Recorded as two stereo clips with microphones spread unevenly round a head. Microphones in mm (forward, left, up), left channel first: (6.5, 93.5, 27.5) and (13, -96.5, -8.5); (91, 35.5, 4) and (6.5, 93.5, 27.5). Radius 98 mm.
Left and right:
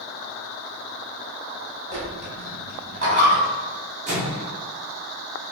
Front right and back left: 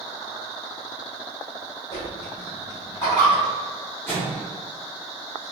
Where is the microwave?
145° right, 0.6 m.